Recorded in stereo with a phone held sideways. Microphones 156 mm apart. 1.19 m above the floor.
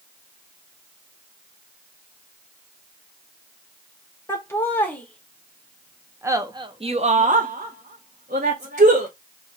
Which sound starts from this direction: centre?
Laughter, at 4.3 s.